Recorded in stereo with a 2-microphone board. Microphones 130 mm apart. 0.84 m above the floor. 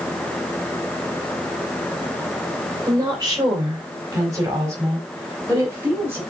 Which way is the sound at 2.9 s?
35° right (ahead or behind).